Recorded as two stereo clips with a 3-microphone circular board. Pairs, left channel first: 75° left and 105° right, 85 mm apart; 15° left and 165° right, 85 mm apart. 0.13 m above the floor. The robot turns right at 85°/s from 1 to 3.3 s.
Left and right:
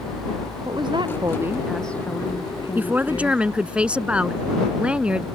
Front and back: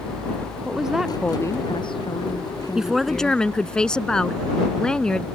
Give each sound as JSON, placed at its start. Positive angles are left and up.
{"t": 0.7, "sound": "a woman speaking", "azimuth_deg": -80}
{"t": 2.8, "sound": "a woman speaking", "azimuth_deg": -100}